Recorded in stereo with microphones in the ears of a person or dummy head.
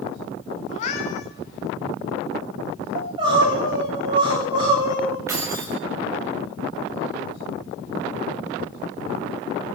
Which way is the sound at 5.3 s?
15° right (ahead or behind).